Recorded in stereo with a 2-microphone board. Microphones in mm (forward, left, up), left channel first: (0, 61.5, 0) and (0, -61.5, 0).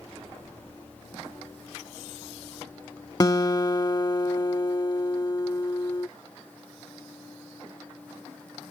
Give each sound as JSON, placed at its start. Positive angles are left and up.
{"t": 3.2, "sound": "a guitar", "side_deg": 30}